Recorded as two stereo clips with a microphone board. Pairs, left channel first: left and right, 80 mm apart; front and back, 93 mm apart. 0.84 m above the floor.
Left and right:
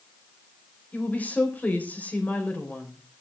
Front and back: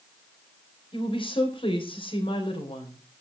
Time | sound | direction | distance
0.9 | a woman speaking | 20° left | 4 m